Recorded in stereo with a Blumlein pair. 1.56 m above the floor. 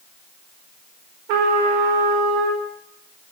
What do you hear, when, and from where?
1.3 s a trumpet: 45° right, 4 m